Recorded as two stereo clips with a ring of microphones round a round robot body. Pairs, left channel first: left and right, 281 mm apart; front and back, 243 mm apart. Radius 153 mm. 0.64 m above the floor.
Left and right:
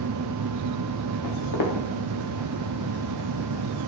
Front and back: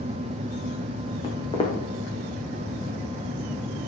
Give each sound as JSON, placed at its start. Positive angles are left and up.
{"t": 1.2, "sound": "footsteps", "azimuth_deg": 70, "distance_m": 3.0}